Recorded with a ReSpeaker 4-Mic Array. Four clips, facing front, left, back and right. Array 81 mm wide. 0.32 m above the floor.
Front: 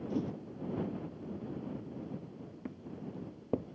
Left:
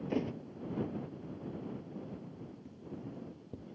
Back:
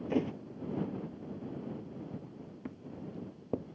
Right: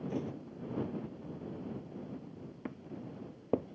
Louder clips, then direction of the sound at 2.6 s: Right 4 dB, even; 90° right.